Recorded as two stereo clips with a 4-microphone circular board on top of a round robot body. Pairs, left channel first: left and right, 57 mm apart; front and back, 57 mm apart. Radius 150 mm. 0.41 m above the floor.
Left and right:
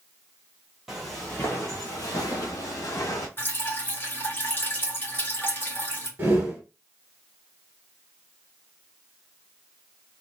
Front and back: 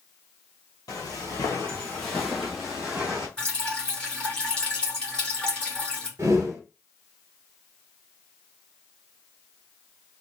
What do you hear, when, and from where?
0.9 s footsteps: 10° right, 0.7 m; by 3.3 s 110° left, 1.3 m
3.4 s dripping: 65° left, 1.7 m
6.2 s a whoosh: 145° right, 1.1 m